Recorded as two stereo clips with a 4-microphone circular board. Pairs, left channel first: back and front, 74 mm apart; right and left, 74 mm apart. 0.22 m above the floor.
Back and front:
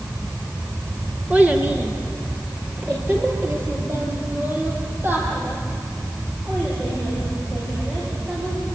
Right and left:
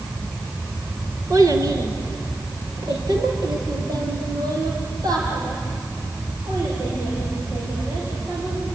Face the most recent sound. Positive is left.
turn(degrees=60)